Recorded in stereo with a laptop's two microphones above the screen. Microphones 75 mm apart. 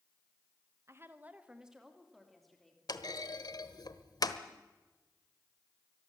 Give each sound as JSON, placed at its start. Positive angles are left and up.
{"t": 0.9, "sound": "a woman speaking", "side_deg": -40, "distance_m": 1.2}
{"t": 2.9, "sound": "a clunk", "side_deg": 60, "distance_m": 1.3}